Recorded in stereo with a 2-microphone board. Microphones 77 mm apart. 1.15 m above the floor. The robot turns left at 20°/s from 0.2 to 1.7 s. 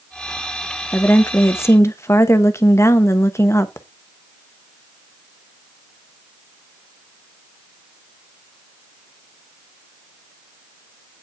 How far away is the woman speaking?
About 1.0 m.